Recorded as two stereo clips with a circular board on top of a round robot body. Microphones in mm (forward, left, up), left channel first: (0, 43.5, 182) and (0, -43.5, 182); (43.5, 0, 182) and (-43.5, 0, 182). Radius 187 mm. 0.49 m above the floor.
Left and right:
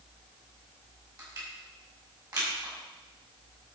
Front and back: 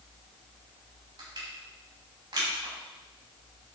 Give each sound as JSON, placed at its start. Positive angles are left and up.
{"t": 1.2, "sound": "crushing", "azimuth_deg": -135, "distance_m": 5.5}